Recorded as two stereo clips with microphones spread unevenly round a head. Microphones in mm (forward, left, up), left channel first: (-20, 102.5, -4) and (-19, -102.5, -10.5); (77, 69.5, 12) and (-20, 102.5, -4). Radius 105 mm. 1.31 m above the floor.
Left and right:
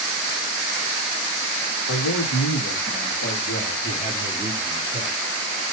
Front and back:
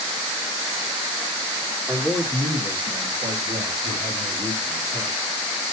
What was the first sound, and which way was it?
A man speaking, 90° left.